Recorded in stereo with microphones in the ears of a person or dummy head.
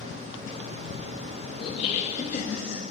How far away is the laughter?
About 1.1 m.